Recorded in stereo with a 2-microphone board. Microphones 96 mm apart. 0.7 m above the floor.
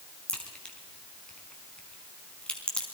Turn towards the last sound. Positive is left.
turn(degrees=10)  # may be behind; listen again after turning